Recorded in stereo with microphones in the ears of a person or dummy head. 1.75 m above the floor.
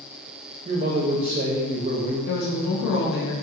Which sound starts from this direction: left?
A woman speaking, at 2.2 s.